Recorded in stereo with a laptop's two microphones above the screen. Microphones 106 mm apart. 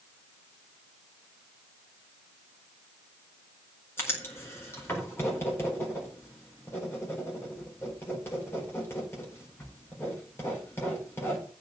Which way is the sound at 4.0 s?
20° left (ahead or behind).